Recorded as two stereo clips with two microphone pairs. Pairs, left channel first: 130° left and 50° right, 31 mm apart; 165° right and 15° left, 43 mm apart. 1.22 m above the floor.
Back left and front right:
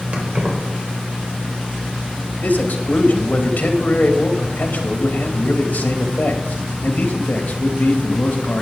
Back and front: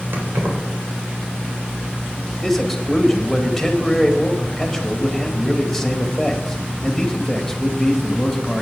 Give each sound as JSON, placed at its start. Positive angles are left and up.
{"t": 0.1, "sound": "keys jangling", "azimuth_deg": -5, "distance_m": 3.5}
{"t": 2.4, "sound": "a man speaking", "azimuth_deg": 105, "distance_m": 2.5}